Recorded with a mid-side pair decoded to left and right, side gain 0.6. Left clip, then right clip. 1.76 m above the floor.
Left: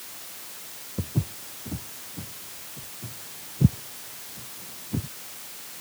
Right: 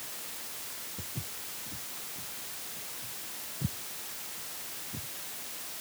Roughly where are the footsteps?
Ahead left.